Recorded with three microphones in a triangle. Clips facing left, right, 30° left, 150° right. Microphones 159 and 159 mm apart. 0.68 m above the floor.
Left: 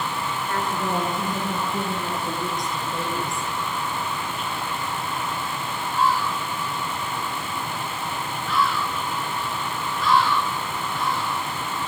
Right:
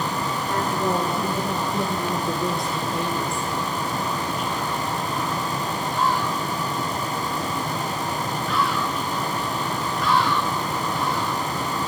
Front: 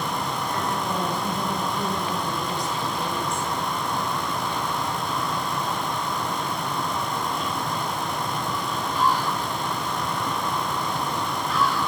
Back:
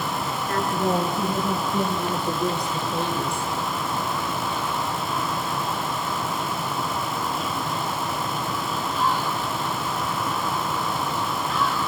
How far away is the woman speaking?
About 8 m.